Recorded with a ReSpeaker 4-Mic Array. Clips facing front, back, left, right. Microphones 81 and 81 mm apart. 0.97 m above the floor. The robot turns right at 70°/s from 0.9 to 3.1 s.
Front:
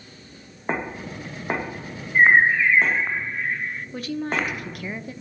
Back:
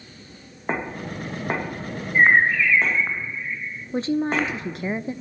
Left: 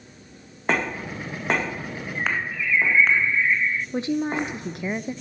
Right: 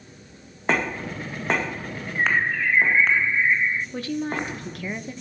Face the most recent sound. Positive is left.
turn(degrees=140)